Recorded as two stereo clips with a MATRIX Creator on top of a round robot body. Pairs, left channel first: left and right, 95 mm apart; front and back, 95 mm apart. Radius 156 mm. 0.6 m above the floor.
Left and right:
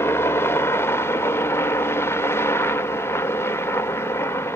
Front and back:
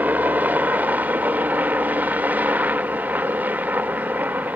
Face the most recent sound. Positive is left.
turn(degrees=125)